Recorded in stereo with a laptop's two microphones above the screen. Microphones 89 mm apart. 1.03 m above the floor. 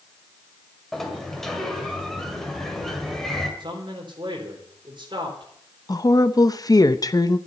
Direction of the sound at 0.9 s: 5° left (ahead or behind).